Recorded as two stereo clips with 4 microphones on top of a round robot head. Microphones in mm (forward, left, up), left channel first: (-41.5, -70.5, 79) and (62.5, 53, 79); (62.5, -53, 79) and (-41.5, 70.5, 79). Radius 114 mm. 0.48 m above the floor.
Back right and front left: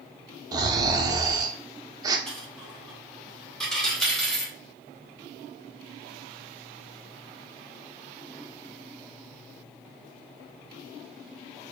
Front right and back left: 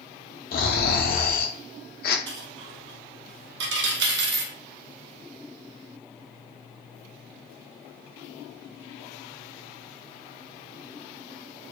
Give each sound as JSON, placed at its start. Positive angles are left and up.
{"t": 0.5, "sound": "snoring", "azimuth_deg": -20, "distance_m": 0.6}
{"t": 2.3, "sound": "a dropped coin", "azimuth_deg": 145, "distance_m": 0.6}